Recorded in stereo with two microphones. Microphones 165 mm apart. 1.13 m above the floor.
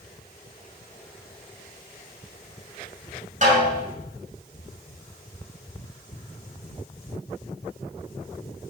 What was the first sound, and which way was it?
A snare drum, 50° right (ahead or behind).